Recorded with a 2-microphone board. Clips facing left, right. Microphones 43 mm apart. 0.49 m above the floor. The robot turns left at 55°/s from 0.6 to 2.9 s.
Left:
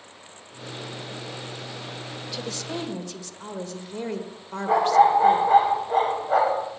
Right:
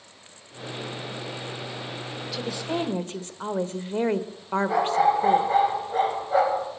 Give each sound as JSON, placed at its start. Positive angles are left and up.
{"t": 2.3, "sound": "a woman speaking", "azimuth_deg": 0, "distance_m": 1.3}
{"t": 4.7, "sound": "a dog barking", "side_deg": 55, "distance_m": 9.0}